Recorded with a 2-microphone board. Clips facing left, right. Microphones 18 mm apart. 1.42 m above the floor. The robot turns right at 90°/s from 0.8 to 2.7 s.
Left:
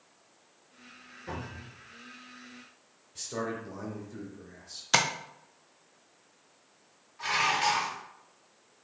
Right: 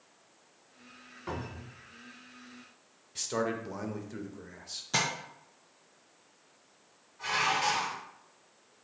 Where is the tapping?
50° left (ahead or behind), 0.5 m.